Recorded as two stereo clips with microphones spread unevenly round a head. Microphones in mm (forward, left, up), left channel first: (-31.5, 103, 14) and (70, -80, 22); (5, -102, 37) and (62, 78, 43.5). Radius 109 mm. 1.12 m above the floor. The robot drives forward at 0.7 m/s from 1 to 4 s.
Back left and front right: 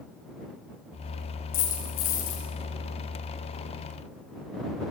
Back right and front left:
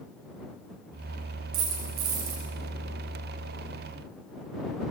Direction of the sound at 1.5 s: 95° left.